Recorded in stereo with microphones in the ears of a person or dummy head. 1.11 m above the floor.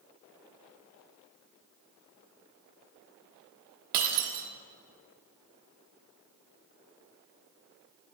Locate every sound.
3.9 s breaking glass: 45° right (ahead or behind), 1.0 m